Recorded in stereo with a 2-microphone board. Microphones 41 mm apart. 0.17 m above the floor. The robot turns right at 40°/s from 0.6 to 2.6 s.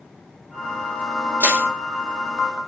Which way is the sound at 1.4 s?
60° right (ahead or behind).